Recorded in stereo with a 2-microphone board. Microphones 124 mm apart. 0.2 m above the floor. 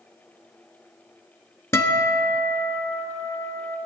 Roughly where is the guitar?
Left.